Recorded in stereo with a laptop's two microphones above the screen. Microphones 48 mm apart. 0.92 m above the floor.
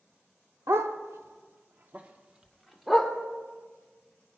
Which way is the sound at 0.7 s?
70° right (ahead or behind).